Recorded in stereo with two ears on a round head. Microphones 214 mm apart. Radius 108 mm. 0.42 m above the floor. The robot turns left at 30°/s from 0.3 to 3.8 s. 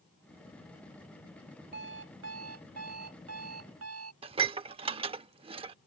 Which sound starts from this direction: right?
Dishes clattering, at 4.2 s.